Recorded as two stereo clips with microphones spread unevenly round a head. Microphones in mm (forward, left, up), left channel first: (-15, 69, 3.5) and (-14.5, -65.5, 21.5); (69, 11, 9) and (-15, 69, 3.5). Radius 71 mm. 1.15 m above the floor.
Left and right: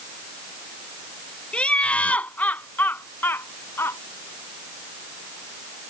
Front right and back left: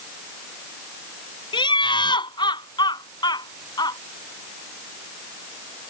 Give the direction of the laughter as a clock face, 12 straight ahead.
12 o'clock.